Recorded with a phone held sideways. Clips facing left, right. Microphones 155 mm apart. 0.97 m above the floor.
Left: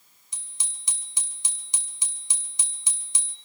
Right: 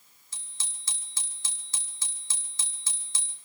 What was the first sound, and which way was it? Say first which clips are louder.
A bicycle bell: even; 15° left (ahead or behind).